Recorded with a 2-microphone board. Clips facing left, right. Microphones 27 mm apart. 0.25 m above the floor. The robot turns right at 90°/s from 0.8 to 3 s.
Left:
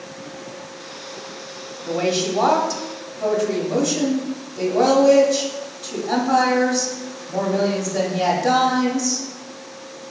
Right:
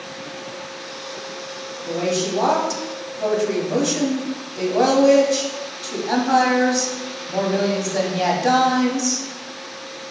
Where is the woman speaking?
100° left, 1.2 m; by 9.2 s 160° right, 1.2 m.